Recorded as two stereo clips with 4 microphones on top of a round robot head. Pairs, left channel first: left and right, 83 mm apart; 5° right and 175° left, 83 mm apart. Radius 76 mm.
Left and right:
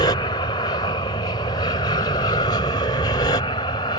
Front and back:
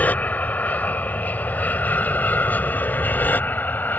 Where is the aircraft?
65° left; by 4.0 s 60° left.